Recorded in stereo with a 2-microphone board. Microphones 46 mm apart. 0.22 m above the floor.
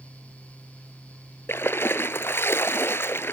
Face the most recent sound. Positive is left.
turn(degrees=60)  # may be behind; listen again after turning